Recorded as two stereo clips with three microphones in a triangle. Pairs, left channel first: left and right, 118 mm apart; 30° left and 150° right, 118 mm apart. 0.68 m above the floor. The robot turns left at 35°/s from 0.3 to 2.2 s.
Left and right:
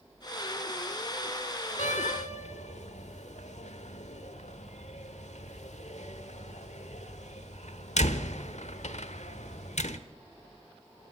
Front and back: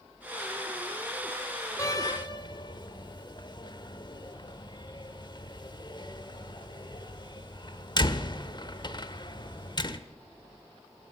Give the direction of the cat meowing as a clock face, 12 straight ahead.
No cat meowing in this recording.